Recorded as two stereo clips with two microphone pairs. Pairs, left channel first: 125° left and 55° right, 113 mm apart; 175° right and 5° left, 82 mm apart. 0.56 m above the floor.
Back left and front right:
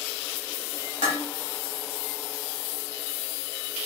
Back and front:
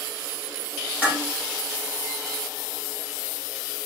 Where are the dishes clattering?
65° right, 2 m.